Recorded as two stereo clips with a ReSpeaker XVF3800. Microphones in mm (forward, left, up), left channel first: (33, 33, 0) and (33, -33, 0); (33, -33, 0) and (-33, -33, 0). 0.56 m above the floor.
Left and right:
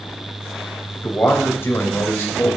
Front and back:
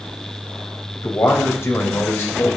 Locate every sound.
0.9 s a man speaking: 40° left, 3.5 m; by 2.6 s 45° left, 2.5 m